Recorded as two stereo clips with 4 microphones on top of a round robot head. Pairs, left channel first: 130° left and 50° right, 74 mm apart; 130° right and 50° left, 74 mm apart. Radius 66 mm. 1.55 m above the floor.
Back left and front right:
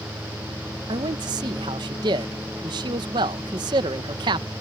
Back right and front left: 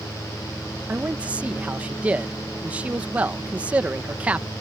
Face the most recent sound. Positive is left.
turn(degrees=-25)